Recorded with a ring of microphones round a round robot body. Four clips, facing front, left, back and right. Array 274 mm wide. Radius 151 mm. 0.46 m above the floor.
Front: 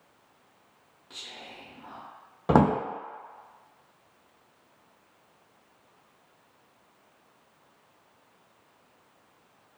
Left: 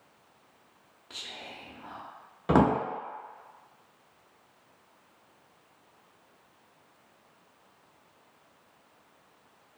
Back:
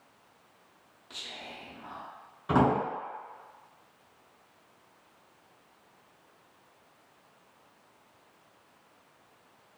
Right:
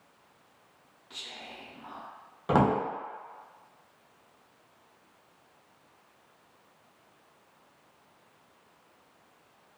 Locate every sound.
1.1 s whispering: 105° left, 0.8 m
2.5 s a drawer: 15° left, 0.6 m